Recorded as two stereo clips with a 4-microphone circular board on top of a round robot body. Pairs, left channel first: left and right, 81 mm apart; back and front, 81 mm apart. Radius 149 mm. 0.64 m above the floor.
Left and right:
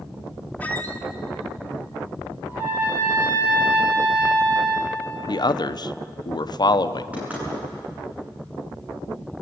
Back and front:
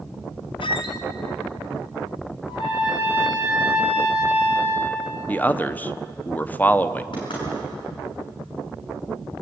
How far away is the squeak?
About 1.1 m.